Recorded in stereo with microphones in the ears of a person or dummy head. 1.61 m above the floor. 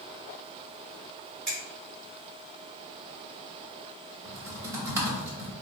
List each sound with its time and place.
1.5 s a finger snap: 5° left (ahead or behind), 1.4 m
4.2 s typing on a keyboard: 10° right (ahead or behind), 1.0 m